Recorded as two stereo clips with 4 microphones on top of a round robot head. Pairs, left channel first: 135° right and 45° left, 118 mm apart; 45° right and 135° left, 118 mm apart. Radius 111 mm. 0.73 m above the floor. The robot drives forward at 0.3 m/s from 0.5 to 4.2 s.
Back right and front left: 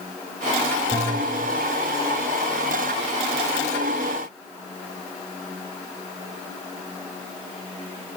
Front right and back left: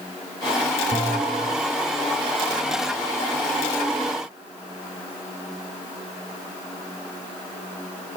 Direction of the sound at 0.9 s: 5° right.